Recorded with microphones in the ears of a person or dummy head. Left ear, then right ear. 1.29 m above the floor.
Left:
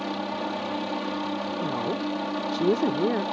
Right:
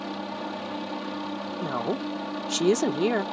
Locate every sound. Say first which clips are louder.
0.0 s a helicopter: left 3 dB; 10° left (ahead or behind)
1.6 s a woman speaking: right 2 dB; 65° right (ahead or behind)